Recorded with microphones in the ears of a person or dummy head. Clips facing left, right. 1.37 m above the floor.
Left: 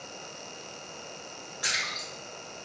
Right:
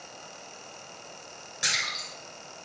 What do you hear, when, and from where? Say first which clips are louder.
1.6 s a splash: right 1 dB; 35° right (ahead or behind), 1.9 m